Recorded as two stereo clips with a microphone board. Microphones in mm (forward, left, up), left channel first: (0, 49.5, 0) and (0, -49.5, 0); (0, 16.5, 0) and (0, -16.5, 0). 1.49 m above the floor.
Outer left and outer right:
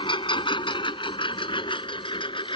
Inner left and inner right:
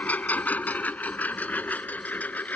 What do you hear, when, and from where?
0.0 s a lawn mower: 60° left (ahead or behind)